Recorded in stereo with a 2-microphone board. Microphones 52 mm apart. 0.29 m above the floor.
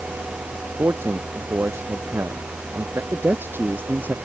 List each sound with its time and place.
0.8 s a man speaking: 50° right (ahead or behind); by 3.0 s 55° right (ahead or behind)
3.1 s a man speaking: 45° right (ahead or behind)